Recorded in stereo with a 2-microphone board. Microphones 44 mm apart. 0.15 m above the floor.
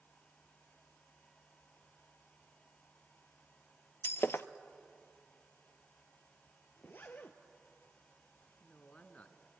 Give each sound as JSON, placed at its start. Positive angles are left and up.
{"t": 4.0, "sound": "breaking glass", "side_deg": 70, "distance_m": 0.7}
{"t": 6.8, "sound": "a zipper", "side_deg": 50, "distance_m": 1.4}
{"t": 8.6, "sound": "a woman speaking", "side_deg": 35, "distance_m": 1.7}